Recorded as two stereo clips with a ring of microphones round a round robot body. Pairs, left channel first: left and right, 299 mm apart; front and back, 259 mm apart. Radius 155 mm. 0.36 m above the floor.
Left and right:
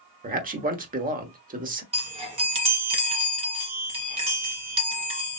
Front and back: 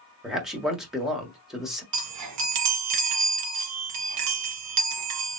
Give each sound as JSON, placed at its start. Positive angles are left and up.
{"t": 0.2, "sound": "a man speaking", "azimuth_deg": -95, "distance_m": 1.2}
{"t": 1.9, "sound": "a chime", "azimuth_deg": -160, "distance_m": 1.3}